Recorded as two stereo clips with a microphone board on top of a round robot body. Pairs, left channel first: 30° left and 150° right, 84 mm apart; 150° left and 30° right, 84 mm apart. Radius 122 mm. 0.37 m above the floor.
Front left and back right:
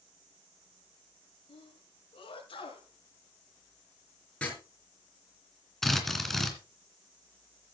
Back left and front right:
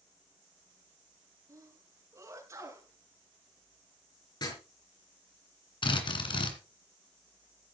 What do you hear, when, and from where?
1.5 s a sneeze: 25° left, 6.5 m
4.4 s writing: 105° left, 5.5 m
5.8 s a drill: 115° left, 2.5 m